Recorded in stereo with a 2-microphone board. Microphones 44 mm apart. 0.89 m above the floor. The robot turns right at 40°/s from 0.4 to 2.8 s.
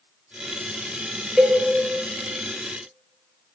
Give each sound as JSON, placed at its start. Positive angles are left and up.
{"t": 1.4, "sound": "a cowbell", "side_deg": -20, "distance_m": 0.9}